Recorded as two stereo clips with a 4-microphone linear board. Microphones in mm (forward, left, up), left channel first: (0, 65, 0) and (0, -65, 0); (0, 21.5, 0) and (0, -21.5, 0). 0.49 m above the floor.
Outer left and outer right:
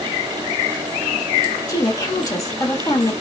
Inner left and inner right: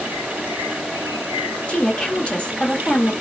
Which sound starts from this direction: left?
A woman speaking, at 1.7 s.